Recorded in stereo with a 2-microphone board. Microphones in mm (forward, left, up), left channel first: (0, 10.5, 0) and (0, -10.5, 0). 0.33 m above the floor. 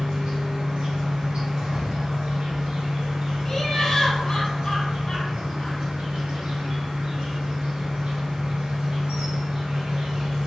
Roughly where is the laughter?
Left.